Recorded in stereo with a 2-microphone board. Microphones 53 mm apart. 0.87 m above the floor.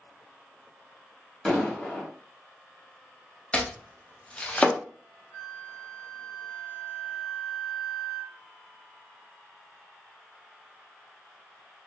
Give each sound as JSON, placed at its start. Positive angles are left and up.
{"t": 1.4, "sound": "an explosion", "side_deg": 10, "distance_m": 1.5}
{"t": 3.5, "sound": "chopping", "side_deg": 25, "distance_m": 0.5}
{"t": 5.3, "sound": "a flute", "side_deg": -15, "distance_m": 1.3}